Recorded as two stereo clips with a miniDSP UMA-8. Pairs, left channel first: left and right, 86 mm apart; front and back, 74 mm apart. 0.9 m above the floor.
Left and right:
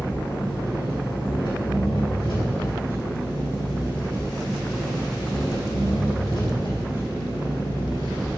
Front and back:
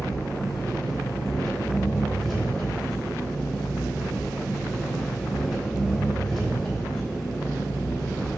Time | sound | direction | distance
0.0 | an engine running | 90° left | 3 m